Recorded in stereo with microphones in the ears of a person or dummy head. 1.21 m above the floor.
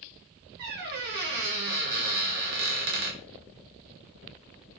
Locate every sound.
0.6 s a squeak: 55° right (ahead or behind), 0.6 m